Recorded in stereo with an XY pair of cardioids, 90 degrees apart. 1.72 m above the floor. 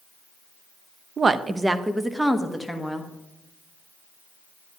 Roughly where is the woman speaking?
Ahead right.